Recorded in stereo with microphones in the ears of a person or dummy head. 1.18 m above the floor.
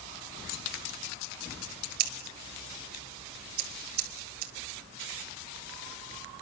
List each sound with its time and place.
2.0 s scissors: 55° right (ahead or behind), 2.5 m